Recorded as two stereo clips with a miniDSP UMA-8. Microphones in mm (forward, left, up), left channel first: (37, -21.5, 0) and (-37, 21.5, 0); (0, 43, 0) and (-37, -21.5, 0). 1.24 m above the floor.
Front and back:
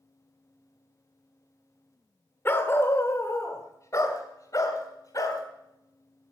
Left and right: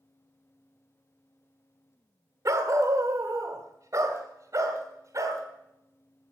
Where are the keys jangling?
I don't hear keys jangling.